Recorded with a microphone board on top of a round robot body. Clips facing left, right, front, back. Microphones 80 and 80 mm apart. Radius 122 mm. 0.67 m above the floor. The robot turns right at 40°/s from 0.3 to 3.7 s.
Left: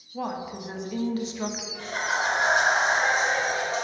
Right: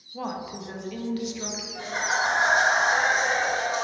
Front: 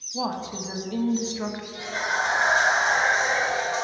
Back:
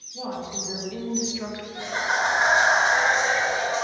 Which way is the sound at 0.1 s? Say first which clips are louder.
Left 1 dB, front 3 dB; 5° left.